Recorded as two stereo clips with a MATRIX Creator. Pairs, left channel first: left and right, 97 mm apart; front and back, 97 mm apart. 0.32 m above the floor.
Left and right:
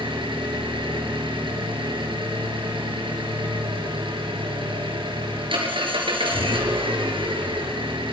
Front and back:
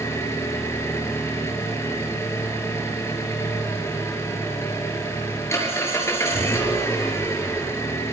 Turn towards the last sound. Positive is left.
turn(degrees=-60)